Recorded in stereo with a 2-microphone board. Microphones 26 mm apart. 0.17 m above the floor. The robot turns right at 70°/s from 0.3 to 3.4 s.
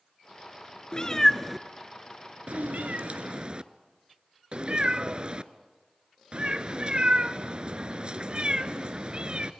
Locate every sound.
0.9 s a cat meowing: 35° left (ahead or behind), 0.6 m; by 9.5 s 40° right (ahead or behind), 0.6 m